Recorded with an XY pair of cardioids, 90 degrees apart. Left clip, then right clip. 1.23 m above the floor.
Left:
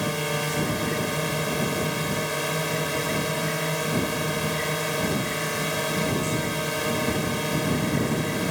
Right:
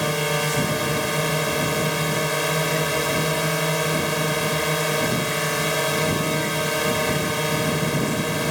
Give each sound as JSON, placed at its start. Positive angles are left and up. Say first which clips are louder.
{"t": 0.0, "sound": "a drone", "louder": "right 4 dB", "azimuth_deg": -40}